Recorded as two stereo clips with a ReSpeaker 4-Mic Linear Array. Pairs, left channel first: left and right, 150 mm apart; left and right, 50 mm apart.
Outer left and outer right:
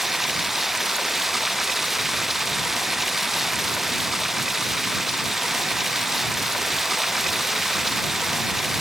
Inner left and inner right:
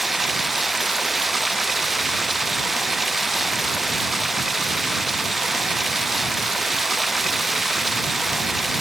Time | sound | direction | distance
0.0 | running water | centre (ahead or behind) | ?